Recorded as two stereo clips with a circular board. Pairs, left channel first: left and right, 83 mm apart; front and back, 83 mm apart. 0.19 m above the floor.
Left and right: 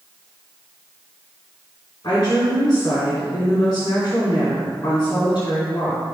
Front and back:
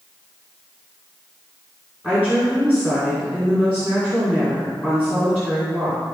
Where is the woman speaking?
75° left, 2.5 m.